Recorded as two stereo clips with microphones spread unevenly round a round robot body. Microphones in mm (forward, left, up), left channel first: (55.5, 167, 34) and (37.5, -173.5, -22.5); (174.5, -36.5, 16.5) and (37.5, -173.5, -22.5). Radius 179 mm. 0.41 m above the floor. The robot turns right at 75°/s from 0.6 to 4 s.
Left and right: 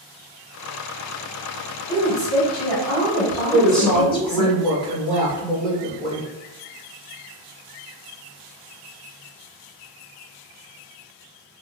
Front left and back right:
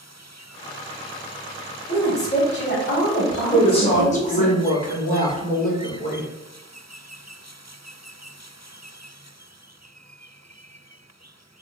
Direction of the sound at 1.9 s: Straight ahead.